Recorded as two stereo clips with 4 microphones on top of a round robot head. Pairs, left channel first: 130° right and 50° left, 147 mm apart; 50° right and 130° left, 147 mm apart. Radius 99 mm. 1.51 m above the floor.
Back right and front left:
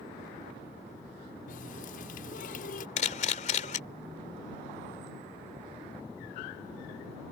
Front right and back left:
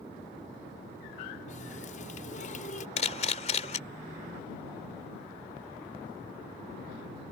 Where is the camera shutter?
90° right.